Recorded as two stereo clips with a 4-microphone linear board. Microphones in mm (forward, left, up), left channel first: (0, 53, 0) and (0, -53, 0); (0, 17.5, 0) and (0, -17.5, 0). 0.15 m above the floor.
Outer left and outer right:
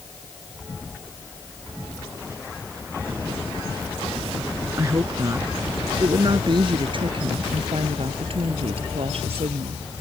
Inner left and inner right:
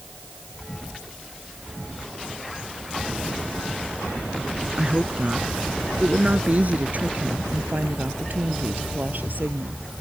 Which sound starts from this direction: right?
A woman speaking, at 4.8 s.